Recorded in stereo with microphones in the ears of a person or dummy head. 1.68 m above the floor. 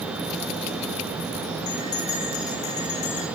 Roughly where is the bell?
Left.